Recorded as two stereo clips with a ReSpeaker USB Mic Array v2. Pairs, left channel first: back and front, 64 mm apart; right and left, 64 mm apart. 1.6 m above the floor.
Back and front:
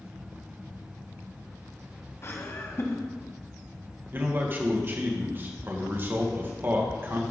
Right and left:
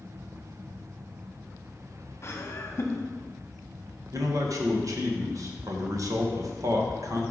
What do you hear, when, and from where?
2.2 s laughter: 135° right, 1.1 m
4.1 s a man speaking: 55° left, 1.8 m